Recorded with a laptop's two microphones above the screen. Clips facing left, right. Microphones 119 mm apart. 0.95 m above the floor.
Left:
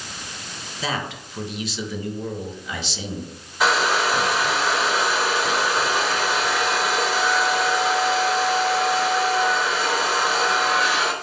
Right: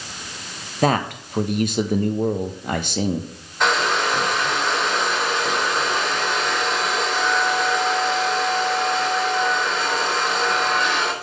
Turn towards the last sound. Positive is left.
turn(degrees=5)  # may be behind; listen again after turning